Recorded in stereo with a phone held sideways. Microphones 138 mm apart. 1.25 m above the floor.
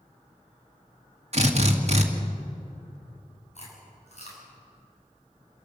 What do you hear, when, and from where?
1.3 s a drill: 50° right (ahead or behind), 2.0 m
3.5 s chewing: 55° left (ahead or behind), 6.5 m